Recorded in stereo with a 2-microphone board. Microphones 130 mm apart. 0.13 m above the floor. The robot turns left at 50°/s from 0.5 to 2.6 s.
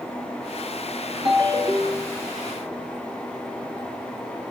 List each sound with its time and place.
1.2 s a ringtone: 125° right, 0.9 m; by 2.2 s 175° right, 0.9 m